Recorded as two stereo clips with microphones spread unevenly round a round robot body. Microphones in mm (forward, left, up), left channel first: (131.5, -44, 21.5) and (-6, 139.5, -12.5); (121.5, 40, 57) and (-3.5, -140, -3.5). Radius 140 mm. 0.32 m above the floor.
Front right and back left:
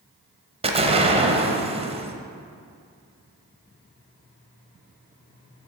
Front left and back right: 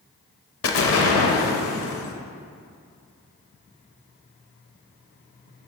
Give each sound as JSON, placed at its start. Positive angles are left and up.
{"t": 0.6, "sound": "an explosion", "azimuth_deg": 75, "distance_m": 0.8}